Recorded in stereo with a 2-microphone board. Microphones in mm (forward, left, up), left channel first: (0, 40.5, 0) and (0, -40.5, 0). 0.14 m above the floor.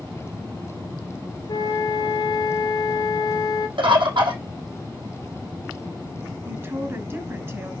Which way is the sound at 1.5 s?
50° left (ahead or behind).